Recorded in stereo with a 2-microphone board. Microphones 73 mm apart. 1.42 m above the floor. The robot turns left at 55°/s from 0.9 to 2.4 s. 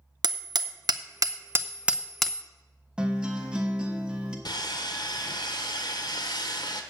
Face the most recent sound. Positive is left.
turn(degrees=80)